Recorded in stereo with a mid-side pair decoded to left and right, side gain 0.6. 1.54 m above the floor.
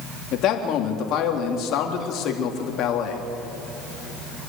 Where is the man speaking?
55° left, 3.5 m.